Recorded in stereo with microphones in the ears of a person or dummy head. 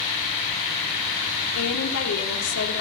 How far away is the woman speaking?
About 4 m.